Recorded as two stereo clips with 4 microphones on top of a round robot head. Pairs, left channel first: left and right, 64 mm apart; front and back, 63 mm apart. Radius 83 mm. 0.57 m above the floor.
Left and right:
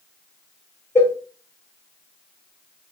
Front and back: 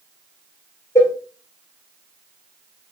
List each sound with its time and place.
0.9 s a cowbell: 40° left, 1.0 m